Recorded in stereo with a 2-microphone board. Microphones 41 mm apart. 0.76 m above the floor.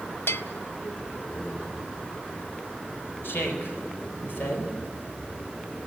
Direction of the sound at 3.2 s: 65° left (ahead or behind).